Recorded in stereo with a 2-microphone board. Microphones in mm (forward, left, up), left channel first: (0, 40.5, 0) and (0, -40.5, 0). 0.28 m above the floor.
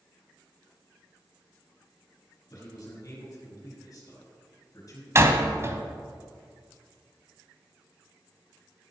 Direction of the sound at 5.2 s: 35° right (ahead or behind).